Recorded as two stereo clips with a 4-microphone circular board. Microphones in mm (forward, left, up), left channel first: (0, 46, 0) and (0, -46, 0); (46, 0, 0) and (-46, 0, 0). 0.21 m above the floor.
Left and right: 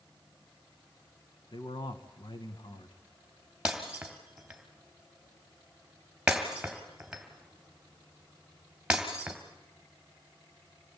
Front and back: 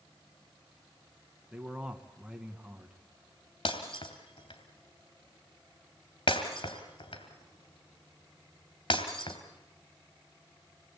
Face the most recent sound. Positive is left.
turn(degrees=-10)